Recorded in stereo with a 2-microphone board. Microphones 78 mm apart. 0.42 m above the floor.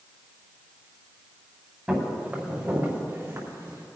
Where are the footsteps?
10° right (ahead or behind), 4 m; by 3.9 s 40° right (ahead or behind), 3.5 m.